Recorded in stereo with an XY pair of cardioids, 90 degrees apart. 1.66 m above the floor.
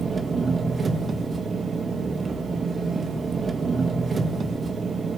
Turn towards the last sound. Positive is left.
turn(degrees=-40)